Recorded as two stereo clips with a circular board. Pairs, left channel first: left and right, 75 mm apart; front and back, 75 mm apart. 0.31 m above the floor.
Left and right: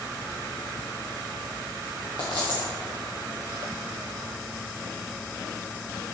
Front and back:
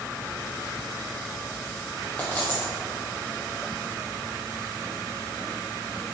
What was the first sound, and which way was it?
A dropped coin, 70° left.